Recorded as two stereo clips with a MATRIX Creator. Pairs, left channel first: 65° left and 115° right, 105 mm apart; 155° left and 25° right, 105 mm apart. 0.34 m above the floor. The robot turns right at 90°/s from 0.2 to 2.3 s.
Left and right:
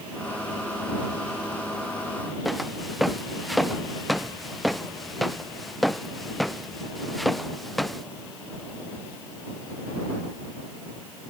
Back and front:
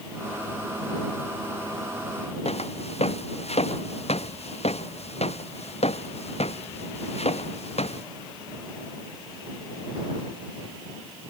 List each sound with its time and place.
2.5 s footsteps: 160° left; by 8.0 s 155° left